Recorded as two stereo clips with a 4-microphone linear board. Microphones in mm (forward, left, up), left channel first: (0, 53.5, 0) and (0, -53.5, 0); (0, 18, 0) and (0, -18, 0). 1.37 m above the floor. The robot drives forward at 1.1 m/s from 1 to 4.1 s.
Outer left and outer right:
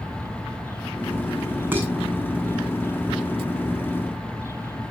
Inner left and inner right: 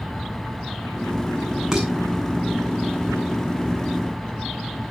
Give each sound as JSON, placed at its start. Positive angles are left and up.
{"t": 1.7, "sound": "dishes clattering", "side_deg": -20, "distance_m": 8.5}